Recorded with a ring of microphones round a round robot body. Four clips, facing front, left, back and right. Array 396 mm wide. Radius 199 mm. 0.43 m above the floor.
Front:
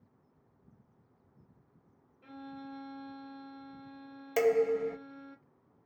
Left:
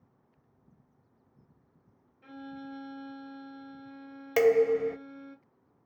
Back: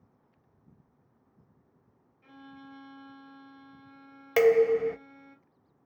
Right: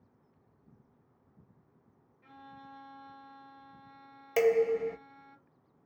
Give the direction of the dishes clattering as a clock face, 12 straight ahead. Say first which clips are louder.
Left 3 dB, back 6 dB; 7 o'clock.